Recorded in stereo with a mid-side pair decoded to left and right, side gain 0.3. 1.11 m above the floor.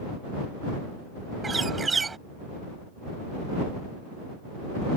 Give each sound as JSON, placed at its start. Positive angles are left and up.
{"t": 1.4, "sound": "a bird", "azimuth_deg": -45}